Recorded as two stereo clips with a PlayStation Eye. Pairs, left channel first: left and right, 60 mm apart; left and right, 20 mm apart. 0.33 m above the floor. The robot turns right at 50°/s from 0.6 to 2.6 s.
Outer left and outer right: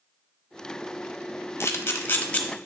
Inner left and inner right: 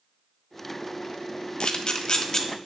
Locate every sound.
1.6 s a camera shutter: 50° left (ahead or behind), 1.2 m; by 2.4 s 25° left (ahead or behind), 1.2 m